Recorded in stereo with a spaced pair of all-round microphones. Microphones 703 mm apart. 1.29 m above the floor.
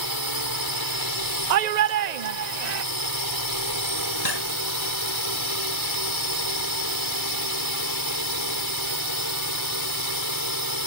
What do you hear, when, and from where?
0.0 s a drone: 30° right (ahead or behind)
1.5 s a shout: 75° right (ahead or behind)
4.2 s cutlery clinking: 60° left (ahead or behind)